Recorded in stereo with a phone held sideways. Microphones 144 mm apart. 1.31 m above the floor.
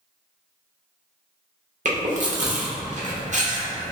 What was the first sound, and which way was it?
Chewing, 55° right (ahead or behind).